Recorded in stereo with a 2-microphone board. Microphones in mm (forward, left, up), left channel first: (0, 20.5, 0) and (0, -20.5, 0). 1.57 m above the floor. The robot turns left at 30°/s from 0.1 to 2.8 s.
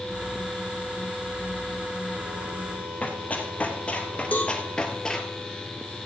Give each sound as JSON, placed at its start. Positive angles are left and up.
{"t": 3.0, "sound": "running footsteps", "side_deg": 35, "distance_m": 2.5}
{"t": 4.3, "sound": "a cowbell", "side_deg": 35, "distance_m": 2.0}